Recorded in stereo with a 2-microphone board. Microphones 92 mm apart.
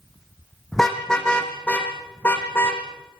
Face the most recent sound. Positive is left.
turn(degrees=25)  # may be behind; listen again after turning